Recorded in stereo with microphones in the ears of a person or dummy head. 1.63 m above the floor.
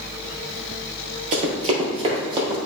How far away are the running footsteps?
About 2 m.